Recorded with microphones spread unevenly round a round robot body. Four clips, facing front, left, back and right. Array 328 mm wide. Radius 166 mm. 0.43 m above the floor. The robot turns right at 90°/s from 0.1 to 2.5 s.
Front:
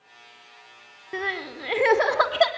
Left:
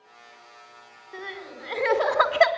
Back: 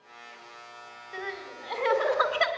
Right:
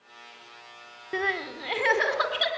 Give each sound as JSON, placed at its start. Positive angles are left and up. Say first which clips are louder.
{"t": 1.1, "sound": "crying", "louder": "right 8 dB, front 7 dB", "azimuth_deg": -60, "distance_m": 2.0}